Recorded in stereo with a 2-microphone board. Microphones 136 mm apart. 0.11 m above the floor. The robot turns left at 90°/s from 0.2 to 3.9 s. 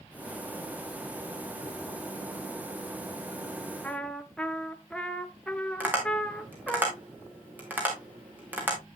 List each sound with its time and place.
3.8 s a trumpet: 10° left (ahead or behind), 0.8 m
5.8 s tapping: 15° right (ahead or behind), 3.5 m